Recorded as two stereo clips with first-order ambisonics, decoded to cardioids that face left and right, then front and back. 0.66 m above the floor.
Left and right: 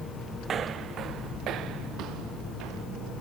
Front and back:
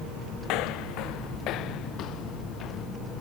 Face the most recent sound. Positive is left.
turn(degrees=-55)